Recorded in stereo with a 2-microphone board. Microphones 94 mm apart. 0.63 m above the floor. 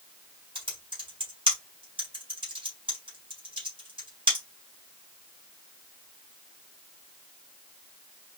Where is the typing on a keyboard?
60° right (ahead or behind), 3 m.